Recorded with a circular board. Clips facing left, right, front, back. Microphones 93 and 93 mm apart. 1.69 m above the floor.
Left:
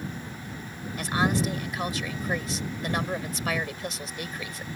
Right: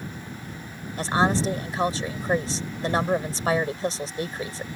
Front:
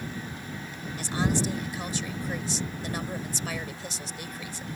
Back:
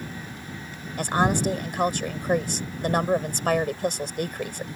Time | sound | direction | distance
1.0 | a woman speaking | 150° right | ?